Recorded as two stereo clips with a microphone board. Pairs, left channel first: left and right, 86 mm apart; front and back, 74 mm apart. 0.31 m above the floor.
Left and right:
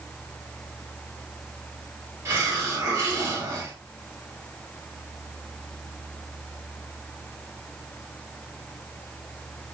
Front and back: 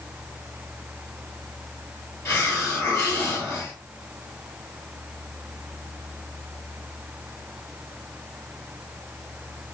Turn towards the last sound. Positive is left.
turn(degrees=-45)